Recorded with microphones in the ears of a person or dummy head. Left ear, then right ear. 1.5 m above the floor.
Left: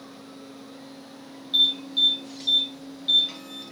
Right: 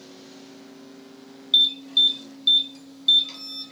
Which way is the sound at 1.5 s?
15° right (ahead or behind).